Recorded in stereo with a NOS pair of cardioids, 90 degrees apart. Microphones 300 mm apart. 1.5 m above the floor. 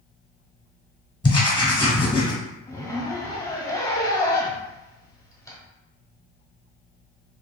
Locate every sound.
1.2 s writing: 15° left, 1.0 m
2.7 s a zipper: 10° left, 1.0 m